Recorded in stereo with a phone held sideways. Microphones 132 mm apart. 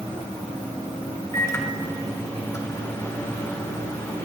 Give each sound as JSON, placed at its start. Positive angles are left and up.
{"t": 1.3, "sound": "a microwave", "side_deg": 25, "distance_m": 2.0}